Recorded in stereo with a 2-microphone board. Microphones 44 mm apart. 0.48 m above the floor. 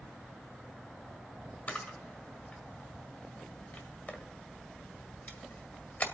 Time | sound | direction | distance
1.7 | a camera shutter | 35° left (ahead or behind) | 1.8 m